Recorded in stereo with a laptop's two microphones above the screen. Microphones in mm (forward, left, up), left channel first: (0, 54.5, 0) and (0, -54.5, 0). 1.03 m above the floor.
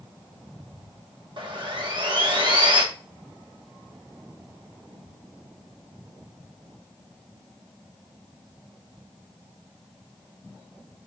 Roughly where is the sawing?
Right.